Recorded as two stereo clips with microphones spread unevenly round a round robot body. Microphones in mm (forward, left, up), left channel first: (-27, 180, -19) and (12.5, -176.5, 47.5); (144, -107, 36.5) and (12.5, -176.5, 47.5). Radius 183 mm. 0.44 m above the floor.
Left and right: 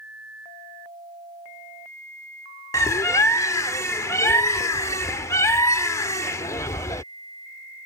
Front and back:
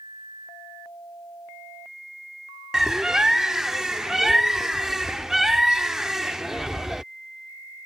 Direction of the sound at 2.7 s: 120° left.